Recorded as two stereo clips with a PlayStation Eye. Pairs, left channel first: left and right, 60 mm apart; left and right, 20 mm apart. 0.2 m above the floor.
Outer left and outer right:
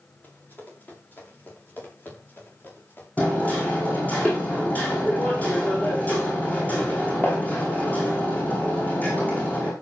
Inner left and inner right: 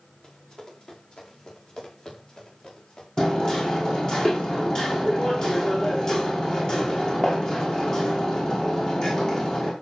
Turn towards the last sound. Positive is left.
turn(degrees=25)  # may be behind; listen again after turning